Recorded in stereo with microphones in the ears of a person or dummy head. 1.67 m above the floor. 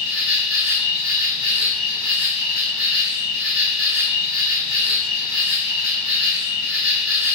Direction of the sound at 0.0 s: 70° left (ahead or behind).